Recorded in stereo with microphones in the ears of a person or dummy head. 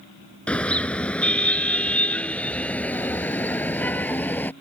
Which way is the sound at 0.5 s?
5° left (ahead or behind).